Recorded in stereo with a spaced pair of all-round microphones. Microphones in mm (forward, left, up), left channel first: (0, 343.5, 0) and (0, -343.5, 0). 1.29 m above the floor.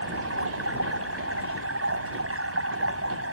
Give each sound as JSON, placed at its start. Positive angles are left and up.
{"t": 0.0, "sound": "running water", "side_deg": -20}